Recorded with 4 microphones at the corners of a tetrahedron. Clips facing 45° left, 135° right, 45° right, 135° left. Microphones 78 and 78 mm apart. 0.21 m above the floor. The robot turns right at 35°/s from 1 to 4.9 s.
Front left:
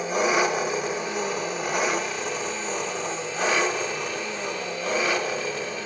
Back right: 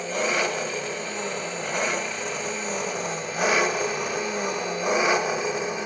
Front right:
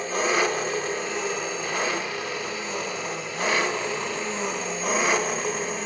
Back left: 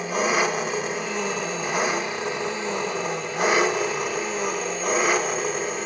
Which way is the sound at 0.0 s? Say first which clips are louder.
Front left 3 dB, back left 1 dB; 85° left.